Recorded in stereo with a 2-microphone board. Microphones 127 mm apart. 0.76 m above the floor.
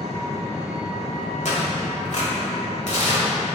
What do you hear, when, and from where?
0.0 s an engine running: 55° left (ahead or behind), 1.4 m
1.4 s tearing paper: 65° left (ahead or behind), 1.5 m